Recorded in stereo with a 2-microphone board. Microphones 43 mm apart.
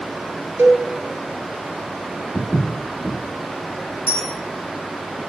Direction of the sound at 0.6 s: 60° right (ahead or behind).